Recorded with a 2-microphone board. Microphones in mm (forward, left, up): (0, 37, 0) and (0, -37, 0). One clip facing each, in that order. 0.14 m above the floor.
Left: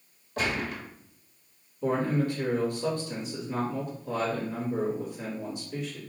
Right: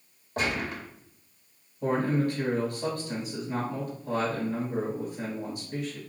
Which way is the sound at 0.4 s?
40° right (ahead or behind).